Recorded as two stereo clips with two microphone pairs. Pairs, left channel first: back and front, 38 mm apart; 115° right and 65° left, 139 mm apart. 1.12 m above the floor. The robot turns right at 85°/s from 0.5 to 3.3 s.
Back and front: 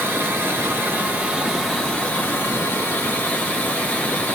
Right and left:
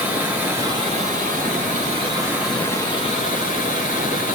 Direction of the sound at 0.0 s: 15° right.